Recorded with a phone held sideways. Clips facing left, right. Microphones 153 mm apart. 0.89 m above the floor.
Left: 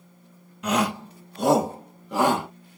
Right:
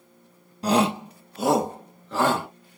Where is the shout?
35° right (ahead or behind), 0.8 m; by 2.5 s 20° left (ahead or behind), 1.5 m.